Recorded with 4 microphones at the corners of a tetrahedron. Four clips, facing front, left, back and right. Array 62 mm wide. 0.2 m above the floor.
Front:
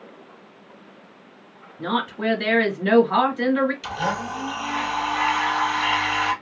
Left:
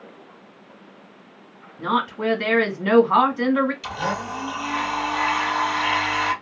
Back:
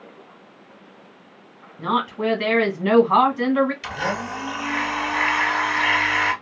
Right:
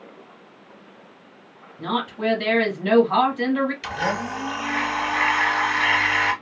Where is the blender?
135° right, 1.9 m.